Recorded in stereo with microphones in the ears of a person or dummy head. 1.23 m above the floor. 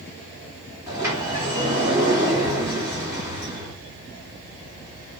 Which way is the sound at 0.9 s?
15° right (ahead or behind).